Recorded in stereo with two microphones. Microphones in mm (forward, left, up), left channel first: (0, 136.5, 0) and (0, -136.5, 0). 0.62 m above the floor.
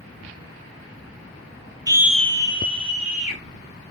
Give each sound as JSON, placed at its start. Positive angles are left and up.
{"t": 1.9, "sound": "a scream", "side_deg": -15, "distance_m": 0.6}